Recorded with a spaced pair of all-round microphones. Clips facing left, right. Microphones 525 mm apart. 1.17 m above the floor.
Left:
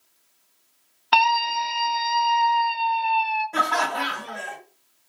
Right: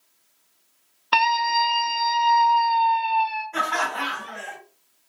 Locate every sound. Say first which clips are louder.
1.1 s a scream: left 1 dB; 10° left (ahead or behind), 0.5 m; by 3.4 s 15° right (ahead or behind), 1.7 m
3.5 s laughter: left 3 dB; 60° left (ahead or behind), 0.8 m